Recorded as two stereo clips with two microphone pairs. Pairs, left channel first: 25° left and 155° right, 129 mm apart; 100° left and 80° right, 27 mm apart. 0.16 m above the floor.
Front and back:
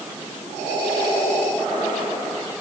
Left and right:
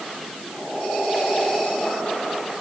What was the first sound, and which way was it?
Only background noise.